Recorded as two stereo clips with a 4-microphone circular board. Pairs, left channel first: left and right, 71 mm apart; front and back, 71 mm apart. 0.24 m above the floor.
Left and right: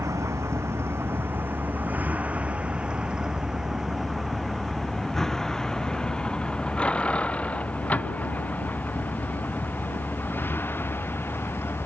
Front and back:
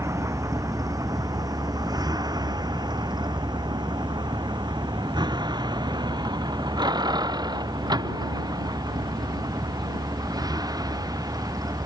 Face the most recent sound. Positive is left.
turn(degrees=150)